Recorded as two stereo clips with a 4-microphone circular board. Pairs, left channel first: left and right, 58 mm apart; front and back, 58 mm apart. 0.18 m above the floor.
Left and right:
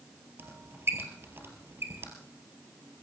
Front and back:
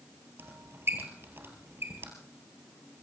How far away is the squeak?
About 2.5 m.